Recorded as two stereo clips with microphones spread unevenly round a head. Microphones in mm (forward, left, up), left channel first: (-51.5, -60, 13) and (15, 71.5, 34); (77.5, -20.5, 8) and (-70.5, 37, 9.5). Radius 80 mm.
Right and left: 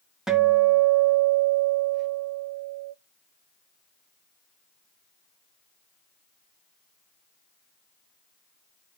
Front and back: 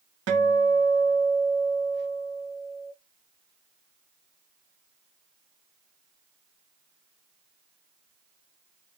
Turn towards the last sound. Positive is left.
turn(degrees=150)